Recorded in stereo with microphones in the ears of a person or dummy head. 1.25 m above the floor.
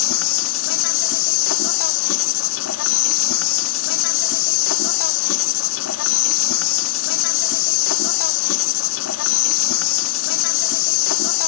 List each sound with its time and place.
0.0 s an insect: 70° left (ahead or behind)